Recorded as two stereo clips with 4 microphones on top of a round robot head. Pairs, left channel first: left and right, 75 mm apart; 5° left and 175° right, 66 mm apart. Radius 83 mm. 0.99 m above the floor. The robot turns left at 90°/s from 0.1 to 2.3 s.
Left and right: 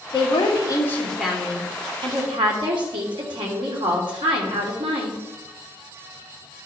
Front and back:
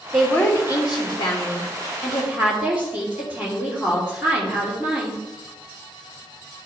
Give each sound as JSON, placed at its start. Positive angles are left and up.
{"t": 0.1, "sound": "a woman speaking", "azimuth_deg": 95, "distance_m": 2.5}